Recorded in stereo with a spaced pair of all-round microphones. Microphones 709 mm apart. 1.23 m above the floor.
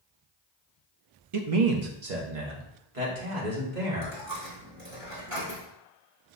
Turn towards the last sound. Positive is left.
turn(degrees=-40)  # may be behind; listen again after turning